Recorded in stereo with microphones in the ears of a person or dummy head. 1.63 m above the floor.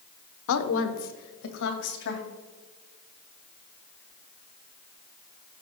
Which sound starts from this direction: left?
A woman speaking, at 0.5 s.